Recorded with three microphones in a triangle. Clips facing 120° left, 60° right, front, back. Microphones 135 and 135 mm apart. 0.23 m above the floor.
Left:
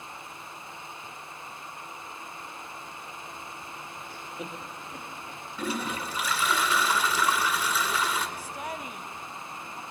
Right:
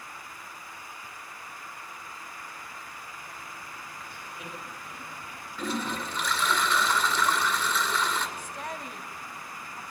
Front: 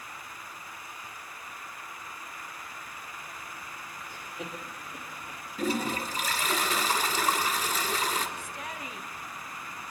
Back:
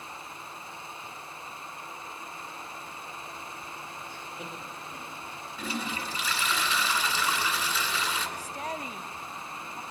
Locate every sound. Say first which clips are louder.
4.1 s laughter: left 5 dB, even; 80° left, 5 m
5.6 s a toilet flushing: even, front 6 dB; 40° left, 2.5 m
8.4 s a woman speaking: left 1 dB, back 4 dB; 160° right, 1.3 m